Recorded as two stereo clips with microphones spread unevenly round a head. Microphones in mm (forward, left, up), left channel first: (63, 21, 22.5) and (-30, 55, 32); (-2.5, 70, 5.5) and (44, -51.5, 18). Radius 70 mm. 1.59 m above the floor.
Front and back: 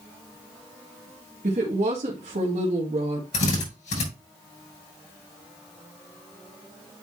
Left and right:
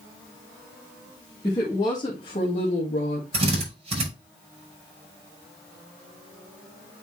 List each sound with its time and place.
1.4 s a woman speaking: 175° right, 1.8 m; by 3.2 s 150° left, 1.9 m
3.3 s a drill: 25° right, 6 m